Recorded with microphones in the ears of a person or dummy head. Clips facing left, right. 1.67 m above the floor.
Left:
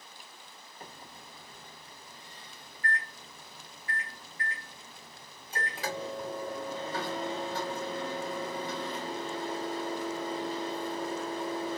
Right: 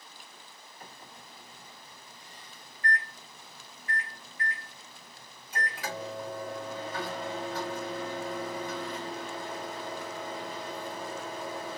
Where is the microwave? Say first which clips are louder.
Left 2 dB; 30° left (ahead or behind), 1.6 m.